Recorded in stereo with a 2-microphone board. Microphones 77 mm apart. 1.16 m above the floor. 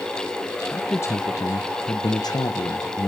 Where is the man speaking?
30° left (ahead or behind), 1.5 m; by 3.1 s 50° left (ahead or behind), 1.3 m.